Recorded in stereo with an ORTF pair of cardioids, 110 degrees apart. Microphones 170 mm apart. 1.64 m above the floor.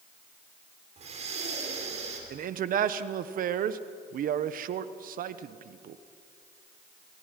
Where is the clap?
I don't hear a clap.